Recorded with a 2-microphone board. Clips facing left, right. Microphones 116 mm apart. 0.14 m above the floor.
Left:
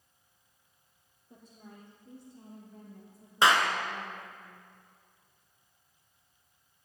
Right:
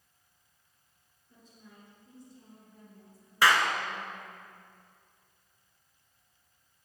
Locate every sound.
1.3 s a woman speaking: 70° left (ahead or behind), 5 m; by 4.4 s 50° left (ahead or behind), 6.5 m
3.4 s a clap: 25° left (ahead or behind), 1.3 m